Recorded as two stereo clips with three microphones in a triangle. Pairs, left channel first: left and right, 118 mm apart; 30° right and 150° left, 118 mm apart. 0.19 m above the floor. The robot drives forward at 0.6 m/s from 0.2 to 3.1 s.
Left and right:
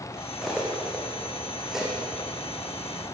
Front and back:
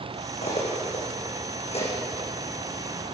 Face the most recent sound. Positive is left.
turn(degrees=-5)